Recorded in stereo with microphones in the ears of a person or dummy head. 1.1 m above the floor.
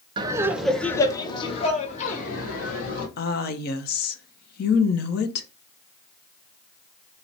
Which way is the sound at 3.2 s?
50° left (ahead or behind).